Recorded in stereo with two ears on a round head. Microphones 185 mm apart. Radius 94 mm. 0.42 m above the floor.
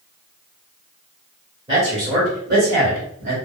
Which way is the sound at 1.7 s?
25° right (ahead or behind).